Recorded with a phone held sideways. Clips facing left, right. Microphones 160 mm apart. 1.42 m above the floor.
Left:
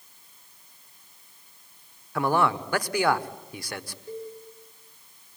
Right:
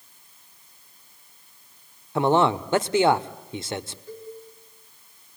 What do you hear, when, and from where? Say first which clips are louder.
2.1 s a man speaking: right 4 dB; 25° right (ahead or behind), 0.9 m
4.1 s a cowbell: left 7 dB; 20° left (ahead or behind), 10 m